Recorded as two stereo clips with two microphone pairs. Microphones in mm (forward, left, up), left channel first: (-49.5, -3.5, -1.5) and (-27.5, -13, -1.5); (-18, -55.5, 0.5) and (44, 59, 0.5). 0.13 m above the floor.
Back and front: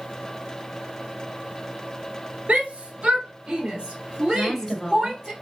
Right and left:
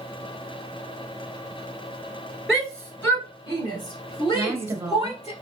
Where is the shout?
30° right, 1.6 m; by 5.3 s 115° right, 2 m.